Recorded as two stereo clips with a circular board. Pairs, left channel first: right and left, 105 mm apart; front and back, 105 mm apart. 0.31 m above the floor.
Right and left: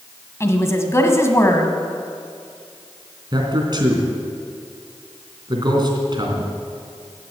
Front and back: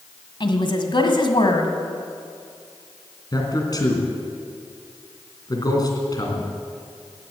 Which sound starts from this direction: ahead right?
A woman speaking, at 0.4 s.